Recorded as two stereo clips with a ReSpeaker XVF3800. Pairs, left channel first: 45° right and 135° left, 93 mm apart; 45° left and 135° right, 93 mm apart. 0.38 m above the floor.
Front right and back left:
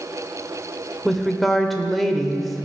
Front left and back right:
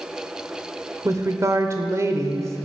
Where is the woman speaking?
130° right, 0.9 m.